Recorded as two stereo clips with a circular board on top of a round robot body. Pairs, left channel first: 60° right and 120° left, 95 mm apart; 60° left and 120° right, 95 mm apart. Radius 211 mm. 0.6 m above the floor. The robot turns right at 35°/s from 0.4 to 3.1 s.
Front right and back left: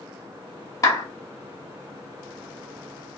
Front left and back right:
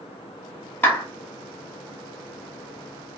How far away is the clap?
About 1.1 m.